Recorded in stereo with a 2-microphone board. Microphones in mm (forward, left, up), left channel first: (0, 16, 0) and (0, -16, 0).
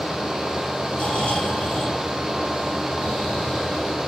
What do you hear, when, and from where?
0.9 s snoring: 35° left (ahead or behind), 3.5 m